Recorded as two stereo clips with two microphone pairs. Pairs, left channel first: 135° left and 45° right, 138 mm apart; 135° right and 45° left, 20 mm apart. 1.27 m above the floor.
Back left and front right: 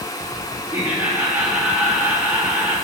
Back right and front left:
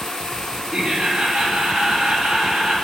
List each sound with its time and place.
0.7 s laughter: 30° left, 2.5 m